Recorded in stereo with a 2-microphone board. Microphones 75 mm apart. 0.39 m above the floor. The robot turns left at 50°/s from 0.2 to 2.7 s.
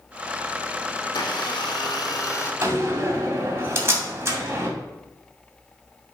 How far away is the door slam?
About 1.9 m.